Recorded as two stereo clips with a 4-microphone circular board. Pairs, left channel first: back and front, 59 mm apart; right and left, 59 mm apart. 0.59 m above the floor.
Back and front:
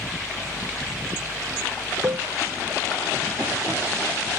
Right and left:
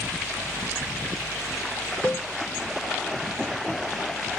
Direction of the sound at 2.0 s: 25° right.